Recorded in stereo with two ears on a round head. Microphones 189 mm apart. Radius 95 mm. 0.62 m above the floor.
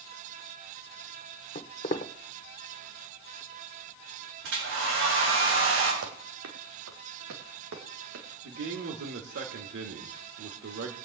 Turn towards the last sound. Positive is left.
turn(degrees=-60)  # may be behind; listen again after turning